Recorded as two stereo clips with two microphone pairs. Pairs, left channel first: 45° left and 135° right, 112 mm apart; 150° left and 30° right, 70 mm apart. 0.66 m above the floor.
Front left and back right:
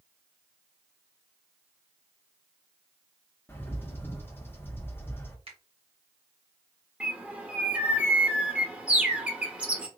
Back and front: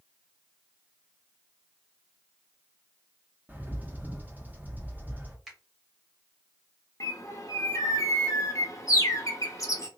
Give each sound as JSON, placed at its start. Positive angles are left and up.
{"t": 3.5, "sound": "a bird", "azimuth_deg": 0, "distance_m": 1.0}
{"t": 5.5, "sound": "a finger snap", "azimuth_deg": -115, "distance_m": 1.9}
{"t": 7.0, "sound": "a bird", "azimuth_deg": 150, "distance_m": 1.0}